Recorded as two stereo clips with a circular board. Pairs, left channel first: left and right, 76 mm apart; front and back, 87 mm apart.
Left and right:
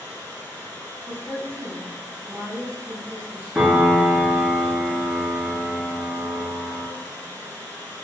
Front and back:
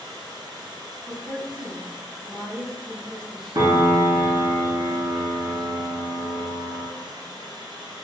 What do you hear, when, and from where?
0.0 s running water: 150° left, 0.9 m
1.1 s a woman speaking: 85° right, 1.1 m
3.5 s a piano: 175° right, 0.6 m